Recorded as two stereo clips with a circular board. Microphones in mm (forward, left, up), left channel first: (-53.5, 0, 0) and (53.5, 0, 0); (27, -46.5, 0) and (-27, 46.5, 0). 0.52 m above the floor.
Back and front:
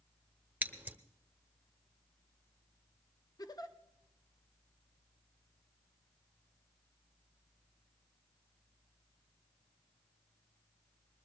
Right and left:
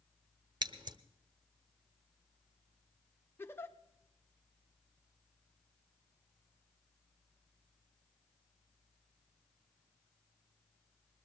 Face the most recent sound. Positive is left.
turn(degrees=-130)